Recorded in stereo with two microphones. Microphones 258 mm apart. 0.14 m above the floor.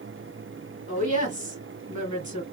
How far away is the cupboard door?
I don't hear a cupboard door.